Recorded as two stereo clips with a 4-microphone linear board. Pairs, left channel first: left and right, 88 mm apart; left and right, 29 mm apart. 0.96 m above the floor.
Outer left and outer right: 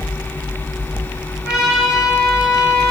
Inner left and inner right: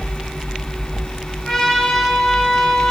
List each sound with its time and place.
1.4 s a trumpet: 10° right (ahead or behind), 4.5 m